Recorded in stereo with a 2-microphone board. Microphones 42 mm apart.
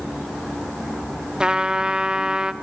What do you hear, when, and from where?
1.4 s a trumpet: 20° right (ahead or behind), 0.6 m